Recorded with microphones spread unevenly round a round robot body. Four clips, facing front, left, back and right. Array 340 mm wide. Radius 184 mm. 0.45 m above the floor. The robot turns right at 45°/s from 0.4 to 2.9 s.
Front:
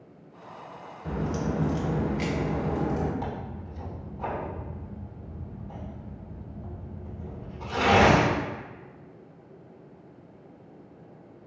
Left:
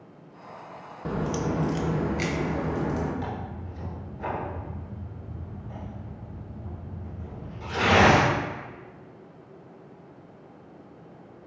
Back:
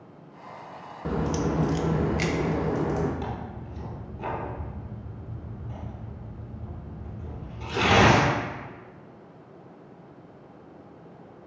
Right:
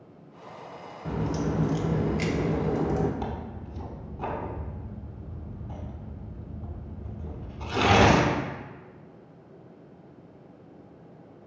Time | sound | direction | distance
1.1 | a crack | 150° left | 0.5 m
3.2 | tearing paper | 125° right | 0.8 m